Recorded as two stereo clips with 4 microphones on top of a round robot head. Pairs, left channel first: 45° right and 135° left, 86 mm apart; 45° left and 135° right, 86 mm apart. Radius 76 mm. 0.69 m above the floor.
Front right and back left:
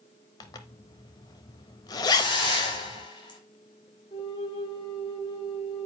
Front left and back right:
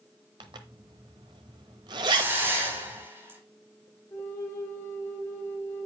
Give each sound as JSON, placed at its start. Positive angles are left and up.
{"t": 0.4, "sound": "a zipper", "azimuth_deg": -95, "distance_m": 0.8}
{"t": 2.1, "sound": "a hiss", "azimuth_deg": -70, "distance_m": 4.0}
{"t": 4.1, "sound": "a flute", "azimuth_deg": -20, "distance_m": 2.5}